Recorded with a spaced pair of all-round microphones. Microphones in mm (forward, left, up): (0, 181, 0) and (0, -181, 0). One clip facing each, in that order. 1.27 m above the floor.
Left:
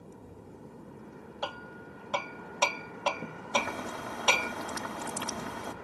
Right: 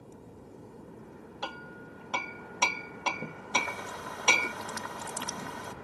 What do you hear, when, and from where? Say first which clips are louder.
1.4 s hammering: left 2 dB; 35° right (ahead or behind)
3.5 s boiling: left 5 dB; 70° left (ahead or behind)